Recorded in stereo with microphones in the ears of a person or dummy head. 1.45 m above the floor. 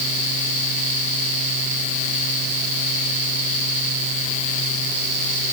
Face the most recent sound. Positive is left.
No sound to turn to.